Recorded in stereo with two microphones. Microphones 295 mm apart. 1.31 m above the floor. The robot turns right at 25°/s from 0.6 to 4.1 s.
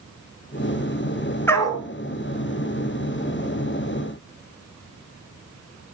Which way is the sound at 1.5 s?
5° left (ahead or behind).